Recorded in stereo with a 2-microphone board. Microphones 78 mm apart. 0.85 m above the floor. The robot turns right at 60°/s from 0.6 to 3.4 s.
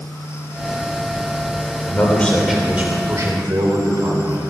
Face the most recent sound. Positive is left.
turn(degrees=-125)